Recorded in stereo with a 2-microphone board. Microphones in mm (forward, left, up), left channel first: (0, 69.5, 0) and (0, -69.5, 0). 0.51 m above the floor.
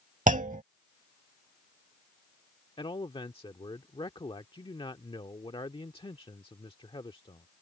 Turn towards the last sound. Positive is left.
turn(degrees=40)  # may be behind; listen again after turning